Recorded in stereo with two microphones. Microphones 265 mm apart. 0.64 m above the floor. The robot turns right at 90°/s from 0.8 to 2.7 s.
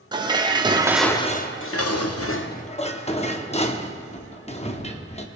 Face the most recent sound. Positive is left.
turn(degrees=155)